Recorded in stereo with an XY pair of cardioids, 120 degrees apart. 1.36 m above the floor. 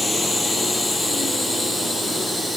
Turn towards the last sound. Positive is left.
turn(degrees=0)